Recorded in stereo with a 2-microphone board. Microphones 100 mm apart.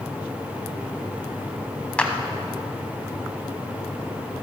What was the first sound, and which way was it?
A clap, 10° left (ahead or behind).